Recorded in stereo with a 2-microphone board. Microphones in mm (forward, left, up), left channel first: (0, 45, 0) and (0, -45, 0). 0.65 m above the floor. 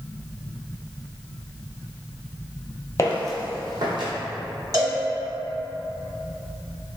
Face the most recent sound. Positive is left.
turn(degrees=-45)  # may be behind; listen again after turning